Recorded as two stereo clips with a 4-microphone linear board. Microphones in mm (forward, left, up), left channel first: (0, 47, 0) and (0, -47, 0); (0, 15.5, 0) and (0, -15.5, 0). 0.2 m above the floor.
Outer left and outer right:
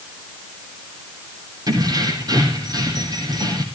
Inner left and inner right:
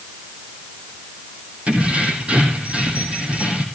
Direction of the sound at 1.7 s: 50° right (ahead or behind).